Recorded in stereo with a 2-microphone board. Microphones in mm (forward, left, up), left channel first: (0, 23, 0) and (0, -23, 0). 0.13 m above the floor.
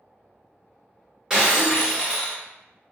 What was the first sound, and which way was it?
Breaking glass, 15° right (ahead or behind).